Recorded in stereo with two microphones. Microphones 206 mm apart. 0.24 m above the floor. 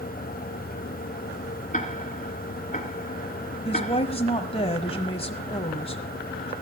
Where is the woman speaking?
30° left (ahead or behind), 1.2 m.